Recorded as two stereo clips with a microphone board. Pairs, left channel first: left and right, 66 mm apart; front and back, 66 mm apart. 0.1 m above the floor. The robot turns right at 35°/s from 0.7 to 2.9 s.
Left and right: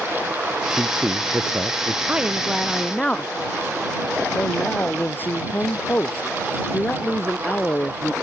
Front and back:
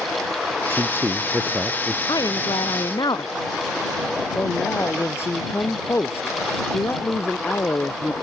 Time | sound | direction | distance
0.7 | a man speaking | 155° right | ?
2.1 | a woman speaking | 15° right | ?
4.3 | a man speaking | 40° left | ?